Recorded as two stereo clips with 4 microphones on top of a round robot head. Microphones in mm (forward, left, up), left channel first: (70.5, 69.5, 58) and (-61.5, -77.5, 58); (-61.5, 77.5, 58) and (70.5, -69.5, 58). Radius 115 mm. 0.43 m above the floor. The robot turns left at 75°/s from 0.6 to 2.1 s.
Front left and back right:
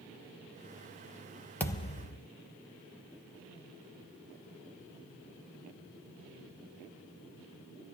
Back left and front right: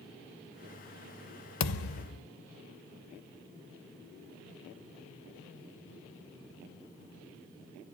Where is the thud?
130° left, 0.5 m; by 2.2 s 95° left, 0.5 m.